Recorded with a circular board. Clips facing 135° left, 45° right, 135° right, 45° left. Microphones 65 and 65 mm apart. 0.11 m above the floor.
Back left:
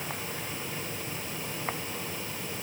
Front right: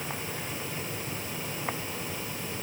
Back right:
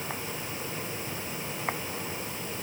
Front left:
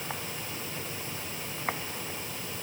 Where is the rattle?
I don't hear a rattle.